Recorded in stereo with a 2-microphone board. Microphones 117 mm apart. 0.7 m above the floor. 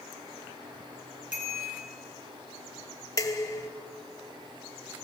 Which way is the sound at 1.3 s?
15° right (ahead or behind).